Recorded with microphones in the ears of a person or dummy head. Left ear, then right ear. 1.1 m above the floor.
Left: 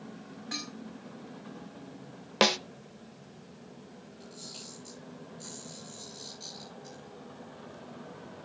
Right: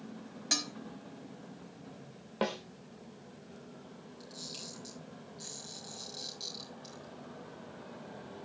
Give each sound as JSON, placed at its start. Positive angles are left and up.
{"t": 0.5, "sound": "dishes clattering", "side_deg": -80, "distance_m": 1.4}
{"t": 2.4, "sound": "a snare drum", "side_deg": 75, "distance_m": 0.7}
{"t": 4.2, "sound": "a camera shutter", "side_deg": -30, "distance_m": 6.0}